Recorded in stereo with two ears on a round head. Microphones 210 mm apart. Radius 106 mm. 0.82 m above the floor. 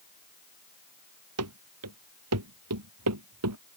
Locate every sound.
1.4 s running footsteps: 70° right (ahead or behind); by 3.6 s 75° right (ahead or behind)